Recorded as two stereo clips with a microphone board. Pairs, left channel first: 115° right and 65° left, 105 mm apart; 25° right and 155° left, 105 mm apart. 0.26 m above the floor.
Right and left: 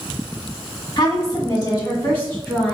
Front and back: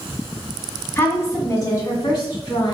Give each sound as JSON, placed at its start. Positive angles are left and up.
{"t": 1.0, "sound": "a woman speaking", "azimuth_deg": -85, "distance_m": 1.6}